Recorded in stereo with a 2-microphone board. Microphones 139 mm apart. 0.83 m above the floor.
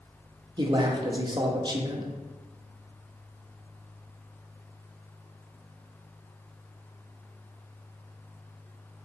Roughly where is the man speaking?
Right.